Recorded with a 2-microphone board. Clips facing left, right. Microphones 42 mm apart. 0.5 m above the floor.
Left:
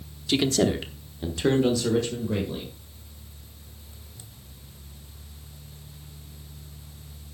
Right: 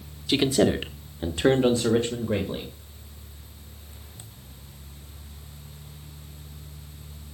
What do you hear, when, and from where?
0.3 s a man speaking: 10° right (ahead or behind), 1.0 m; by 2.7 s 35° right (ahead or behind), 2 m